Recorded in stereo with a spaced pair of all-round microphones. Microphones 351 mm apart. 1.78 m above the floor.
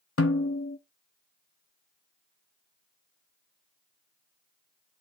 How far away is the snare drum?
About 0.7 m.